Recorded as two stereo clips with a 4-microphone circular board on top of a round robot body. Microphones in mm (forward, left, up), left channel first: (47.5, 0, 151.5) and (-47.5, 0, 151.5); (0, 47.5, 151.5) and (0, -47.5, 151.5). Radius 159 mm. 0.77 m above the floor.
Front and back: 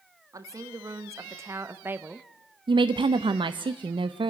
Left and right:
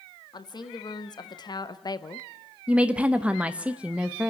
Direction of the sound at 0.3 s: 130° left.